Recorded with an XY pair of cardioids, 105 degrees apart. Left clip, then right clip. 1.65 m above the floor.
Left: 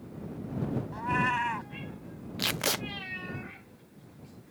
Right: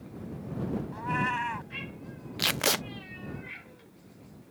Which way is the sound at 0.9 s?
10° left.